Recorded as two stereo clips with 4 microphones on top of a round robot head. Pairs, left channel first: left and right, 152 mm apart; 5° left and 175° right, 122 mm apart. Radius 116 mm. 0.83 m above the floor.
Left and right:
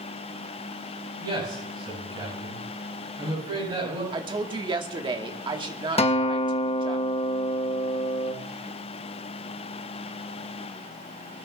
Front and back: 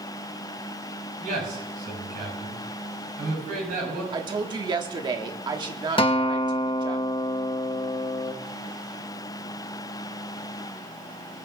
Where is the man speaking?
155° right, 7.5 m.